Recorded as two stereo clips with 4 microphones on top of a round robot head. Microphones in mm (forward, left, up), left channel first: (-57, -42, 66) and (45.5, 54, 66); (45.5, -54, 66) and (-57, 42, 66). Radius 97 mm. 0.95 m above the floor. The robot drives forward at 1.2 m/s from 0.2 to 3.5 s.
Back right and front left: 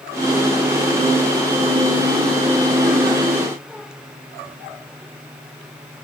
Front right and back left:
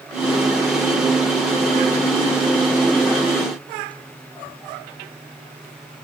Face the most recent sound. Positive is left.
No sound to turn to.